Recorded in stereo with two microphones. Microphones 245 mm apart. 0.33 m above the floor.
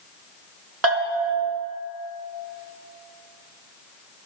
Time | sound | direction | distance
0.8 | a bell | 85° right | 1.0 m